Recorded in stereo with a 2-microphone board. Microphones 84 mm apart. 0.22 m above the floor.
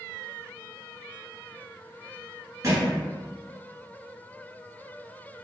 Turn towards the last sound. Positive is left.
turn(degrees=-40)  # may be behind; listen again after turning